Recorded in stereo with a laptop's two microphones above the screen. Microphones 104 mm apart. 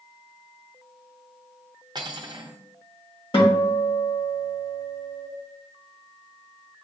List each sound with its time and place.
1.9 s cutlery clinking: 45° right (ahead or behind), 0.6 m
3.3 s a guitar: 65° left (ahead or behind), 1.6 m